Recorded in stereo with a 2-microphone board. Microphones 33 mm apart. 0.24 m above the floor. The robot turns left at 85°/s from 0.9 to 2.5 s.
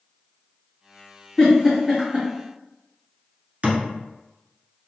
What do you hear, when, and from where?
1.4 s a giggle: 20° left (ahead or behind), 1.9 m; by 2.3 s 35° right (ahead or behind), 1.9 m
3.6 s a thud: 45° right (ahead or behind), 1.0 m